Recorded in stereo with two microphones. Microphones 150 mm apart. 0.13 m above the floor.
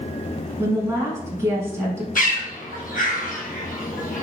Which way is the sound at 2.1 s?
70° left (ahead or behind).